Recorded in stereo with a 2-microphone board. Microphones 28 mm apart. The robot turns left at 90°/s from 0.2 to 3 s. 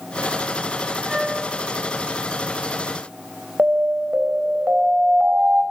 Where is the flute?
5° right, 5.5 m; by 1.4 s 40° right, 5.5 m.